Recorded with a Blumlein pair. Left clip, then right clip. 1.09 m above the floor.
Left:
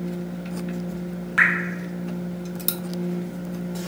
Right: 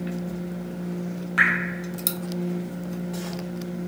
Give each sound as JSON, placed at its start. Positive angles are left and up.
{"t": 1.4, "sound": "dripping", "azimuth_deg": 5, "distance_m": 0.7}